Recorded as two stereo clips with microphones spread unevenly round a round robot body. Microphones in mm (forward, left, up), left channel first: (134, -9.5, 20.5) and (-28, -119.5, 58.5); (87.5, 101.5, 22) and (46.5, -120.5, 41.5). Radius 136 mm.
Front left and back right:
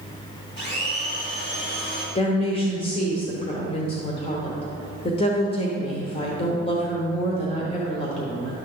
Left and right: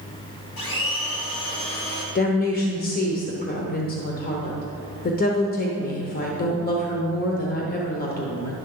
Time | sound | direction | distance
0.6 | a blender | 100° left | 3 m
2.1 | a woman speaking | 70° left | 1.0 m